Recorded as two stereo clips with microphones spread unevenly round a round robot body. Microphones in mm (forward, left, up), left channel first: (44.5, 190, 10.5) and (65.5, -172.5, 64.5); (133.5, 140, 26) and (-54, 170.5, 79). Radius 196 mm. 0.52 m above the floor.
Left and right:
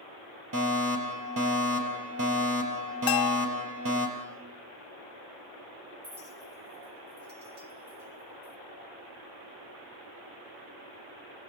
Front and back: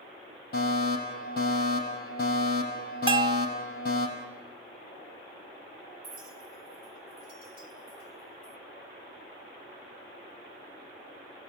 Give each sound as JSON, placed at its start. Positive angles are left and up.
{"t": 0.5, "sound": "a fire alarm", "azimuth_deg": -35, "distance_m": 5.0}
{"t": 3.1, "sound": "a bell", "azimuth_deg": 100, "distance_m": 1.1}
{"t": 6.0, "sound": "a clink", "azimuth_deg": -155, "distance_m": 2.0}